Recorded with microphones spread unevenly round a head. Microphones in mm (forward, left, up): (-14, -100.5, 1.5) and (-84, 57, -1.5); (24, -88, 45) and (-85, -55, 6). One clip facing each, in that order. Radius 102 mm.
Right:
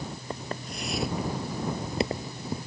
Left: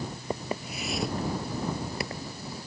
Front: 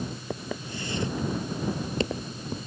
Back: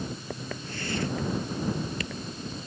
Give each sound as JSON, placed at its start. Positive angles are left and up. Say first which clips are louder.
{"t": 0.3, "sound": "footsteps", "louder": "left 5 dB, front 2 dB", "azimuth_deg": 40}